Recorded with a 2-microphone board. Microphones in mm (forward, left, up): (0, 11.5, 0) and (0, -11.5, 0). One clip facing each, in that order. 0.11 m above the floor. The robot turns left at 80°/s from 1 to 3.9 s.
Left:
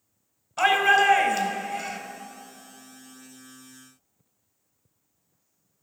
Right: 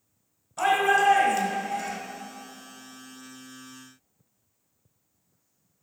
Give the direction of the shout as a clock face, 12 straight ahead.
10 o'clock.